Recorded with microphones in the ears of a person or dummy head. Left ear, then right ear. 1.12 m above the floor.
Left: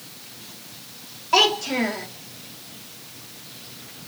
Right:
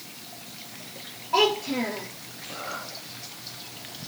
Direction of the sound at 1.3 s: 75° left (ahead or behind).